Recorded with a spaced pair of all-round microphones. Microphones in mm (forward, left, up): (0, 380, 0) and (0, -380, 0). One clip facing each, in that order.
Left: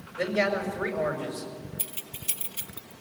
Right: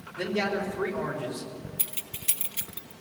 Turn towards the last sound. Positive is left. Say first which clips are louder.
# left 1 dB
turn(degrees=-55)  # may be behind; listen again after turning